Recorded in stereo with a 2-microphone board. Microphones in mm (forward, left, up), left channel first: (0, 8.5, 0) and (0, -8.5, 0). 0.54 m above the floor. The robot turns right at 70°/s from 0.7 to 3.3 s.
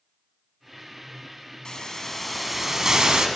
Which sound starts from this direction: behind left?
A hiss, at 1.6 s.